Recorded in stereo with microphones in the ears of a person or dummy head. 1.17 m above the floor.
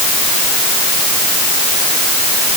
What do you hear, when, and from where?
Only background noise.